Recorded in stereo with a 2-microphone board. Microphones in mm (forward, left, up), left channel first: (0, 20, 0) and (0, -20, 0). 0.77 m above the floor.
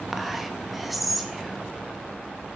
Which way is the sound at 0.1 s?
Centre (ahead or behind).